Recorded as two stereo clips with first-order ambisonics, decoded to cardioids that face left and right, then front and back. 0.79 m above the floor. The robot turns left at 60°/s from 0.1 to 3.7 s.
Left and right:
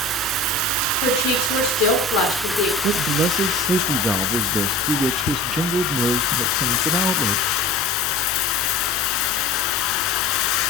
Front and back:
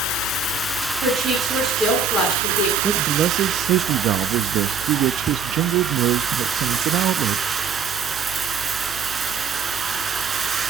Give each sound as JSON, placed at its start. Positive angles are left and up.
{"t": 0.0, "sound": "running water", "azimuth_deg": -35, "distance_m": 1.4}
{"t": 1.0, "sound": "a woman speaking", "azimuth_deg": 135, "distance_m": 9.0}
{"t": 2.8, "sound": "a man speaking", "azimuth_deg": -110, "distance_m": 0.7}